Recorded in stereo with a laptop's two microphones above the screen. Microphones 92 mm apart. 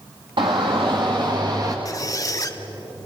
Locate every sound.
0.4 s a shout: 65° right (ahead or behind), 1.7 m; by 1.8 s 45° right (ahead or behind), 1.3 m
1.9 s a squeak: 40° left (ahead or behind), 0.8 m